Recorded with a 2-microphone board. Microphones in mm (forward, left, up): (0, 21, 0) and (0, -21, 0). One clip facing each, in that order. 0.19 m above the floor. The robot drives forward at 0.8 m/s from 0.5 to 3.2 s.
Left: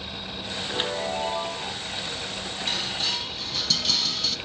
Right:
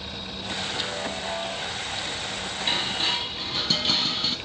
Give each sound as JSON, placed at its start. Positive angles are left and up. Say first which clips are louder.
{"t": 0.7, "sound": "a chime", "louder": "left 6 dB", "side_deg": 35, "distance_m": 1.5}
{"t": 2.7, "sound": "dishes clattering", "louder": "right 3 dB", "side_deg": -30, "distance_m": 0.8}